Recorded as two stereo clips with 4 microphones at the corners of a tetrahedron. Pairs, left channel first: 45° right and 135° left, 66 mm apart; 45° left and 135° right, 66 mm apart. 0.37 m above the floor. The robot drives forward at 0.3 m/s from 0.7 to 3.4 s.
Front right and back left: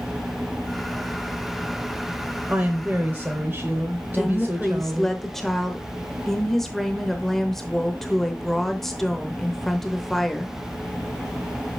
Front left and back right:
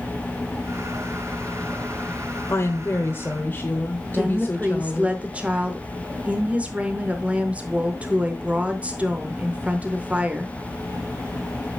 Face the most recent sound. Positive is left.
turn(degrees=-120)